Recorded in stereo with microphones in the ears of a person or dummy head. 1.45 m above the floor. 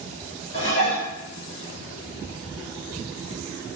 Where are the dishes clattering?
35° left (ahead or behind), 1.7 m.